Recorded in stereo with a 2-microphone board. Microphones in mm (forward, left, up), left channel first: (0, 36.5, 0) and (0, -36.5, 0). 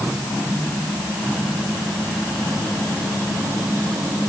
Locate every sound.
Only background noise.